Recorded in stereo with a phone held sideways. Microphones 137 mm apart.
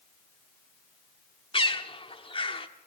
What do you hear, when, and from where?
1.5 s a bird: 40° left (ahead or behind), 1.3 m